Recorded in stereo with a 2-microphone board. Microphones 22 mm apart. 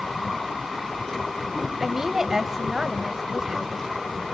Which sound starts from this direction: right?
A woman speaking, at 1.8 s.